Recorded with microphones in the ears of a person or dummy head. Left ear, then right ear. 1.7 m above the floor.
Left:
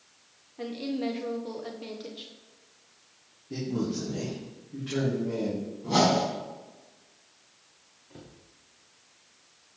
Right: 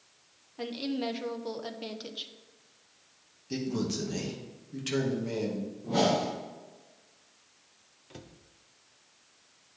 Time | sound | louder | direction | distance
0.6 | a woman speaking | left 1 dB | 25° right (ahead or behind) | 1.0 m
3.5 | a man speaking | left 1 dB | 75° right (ahead or behind) | 2.5 m
5.8 | a whoosh | left 3 dB | 65° left (ahead or behind) | 4.5 m
8.1 | a cupboard door | even | 75° right (ahead or behind) | 0.9 m